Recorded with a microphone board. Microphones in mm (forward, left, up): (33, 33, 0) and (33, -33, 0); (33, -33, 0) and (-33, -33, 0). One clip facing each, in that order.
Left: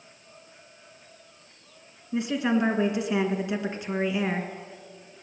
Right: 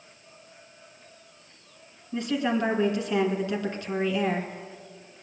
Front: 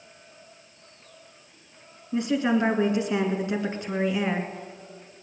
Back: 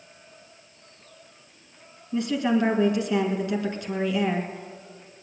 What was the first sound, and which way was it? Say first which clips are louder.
A woman speaking: left 1 dB, even; 35° left.